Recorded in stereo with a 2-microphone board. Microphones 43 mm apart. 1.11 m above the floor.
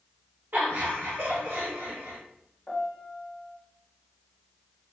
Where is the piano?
20° left (ahead or behind), 0.9 m.